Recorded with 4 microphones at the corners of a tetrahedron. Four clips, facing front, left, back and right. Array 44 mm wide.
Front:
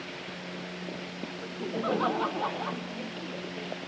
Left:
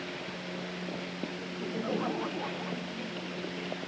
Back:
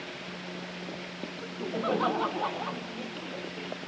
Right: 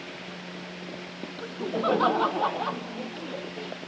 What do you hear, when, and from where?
1.4 s laughter: 95° right; by 3.7 s 85° right